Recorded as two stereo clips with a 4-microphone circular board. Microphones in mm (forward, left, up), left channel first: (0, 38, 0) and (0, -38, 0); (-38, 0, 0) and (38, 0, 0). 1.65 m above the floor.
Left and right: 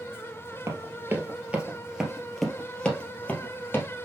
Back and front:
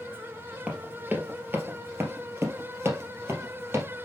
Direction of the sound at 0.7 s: 65° right.